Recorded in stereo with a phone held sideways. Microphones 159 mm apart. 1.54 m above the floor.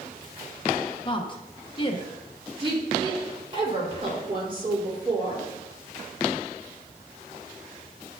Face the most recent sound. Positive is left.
turn(degrees=-35)  # may be behind; listen again after turning